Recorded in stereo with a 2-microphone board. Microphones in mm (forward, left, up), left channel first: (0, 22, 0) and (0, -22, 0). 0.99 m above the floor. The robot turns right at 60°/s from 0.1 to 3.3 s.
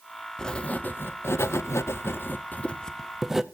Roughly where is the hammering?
No hammering in this recording.